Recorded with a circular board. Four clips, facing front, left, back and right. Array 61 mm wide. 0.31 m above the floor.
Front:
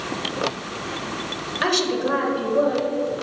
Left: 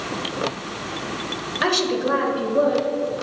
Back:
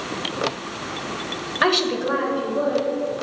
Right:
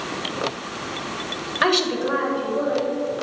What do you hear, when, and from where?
1.6 s a woman speaking: 145° right, 0.9 m; by 3.2 s 55° left, 1.6 m